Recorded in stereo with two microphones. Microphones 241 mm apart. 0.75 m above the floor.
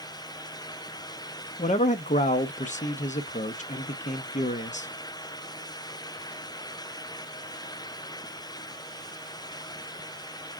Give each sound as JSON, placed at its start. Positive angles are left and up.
{"t": 1.6, "sound": "a man speaking", "side_deg": 30, "distance_m": 0.7}